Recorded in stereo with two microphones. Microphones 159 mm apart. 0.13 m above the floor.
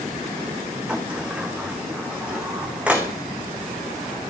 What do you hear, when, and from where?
0.9 s a sliding door: 5° right (ahead or behind), 2 m